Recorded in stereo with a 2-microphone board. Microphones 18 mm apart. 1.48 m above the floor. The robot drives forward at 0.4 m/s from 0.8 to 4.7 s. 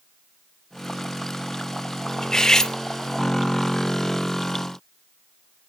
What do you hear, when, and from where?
2.2 s cutlery clinking: 35° left (ahead or behind), 0.6 m; by 2.8 s 30° left (ahead or behind), 0.7 m